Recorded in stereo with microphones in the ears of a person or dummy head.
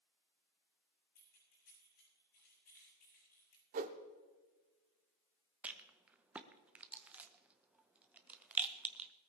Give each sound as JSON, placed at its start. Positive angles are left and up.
{"t": 1.1, "sound": "keys jangling", "side_deg": 50, "distance_m": 7.0}
{"t": 3.7, "sound": "a whoosh", "side_deg": -35, "distance_m": 1.1}
{"t": 5.6, "sound": "a rattle", "side_deg": -10, "distance_m": 0.8}